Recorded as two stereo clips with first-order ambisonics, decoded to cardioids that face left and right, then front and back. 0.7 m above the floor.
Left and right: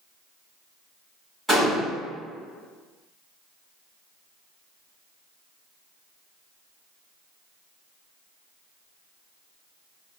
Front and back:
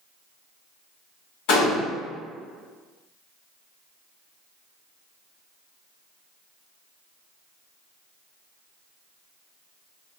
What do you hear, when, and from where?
1.5 s a gunshot: straight ahead, 1.4 m